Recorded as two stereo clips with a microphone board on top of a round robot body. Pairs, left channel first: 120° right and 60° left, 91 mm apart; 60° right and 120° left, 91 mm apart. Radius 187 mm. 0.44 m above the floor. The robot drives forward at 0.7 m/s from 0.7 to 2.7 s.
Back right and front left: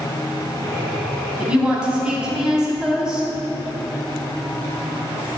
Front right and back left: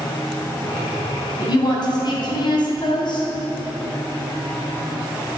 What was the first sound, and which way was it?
A woman speaking, 20° right.